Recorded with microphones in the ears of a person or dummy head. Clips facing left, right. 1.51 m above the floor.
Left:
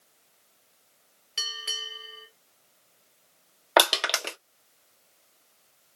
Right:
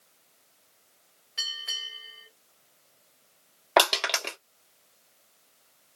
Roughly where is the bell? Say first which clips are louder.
Left 6 dB; left.